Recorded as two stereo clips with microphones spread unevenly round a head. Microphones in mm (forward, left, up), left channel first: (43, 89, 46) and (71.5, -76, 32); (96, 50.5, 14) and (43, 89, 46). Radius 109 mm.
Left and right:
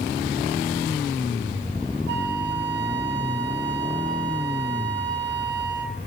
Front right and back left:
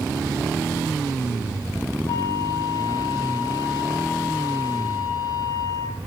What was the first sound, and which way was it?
A flute, 70° right.